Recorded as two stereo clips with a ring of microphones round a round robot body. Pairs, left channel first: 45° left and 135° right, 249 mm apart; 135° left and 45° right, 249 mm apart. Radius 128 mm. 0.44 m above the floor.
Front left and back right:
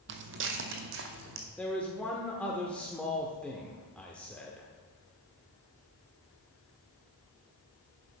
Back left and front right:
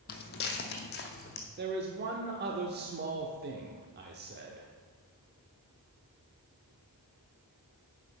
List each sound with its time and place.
0.1 s footsteps: 175° right, 0.8 m
1.6 s a man speaking: 35° right, 0.9 m